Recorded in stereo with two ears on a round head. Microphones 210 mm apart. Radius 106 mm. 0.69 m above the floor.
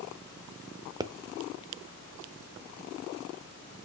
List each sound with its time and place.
1.0 s a pop: 15° right (ahead or behind), 0.5 m